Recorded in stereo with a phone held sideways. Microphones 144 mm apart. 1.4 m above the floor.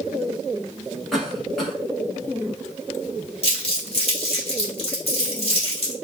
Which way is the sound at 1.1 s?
Centre (ahead or behind).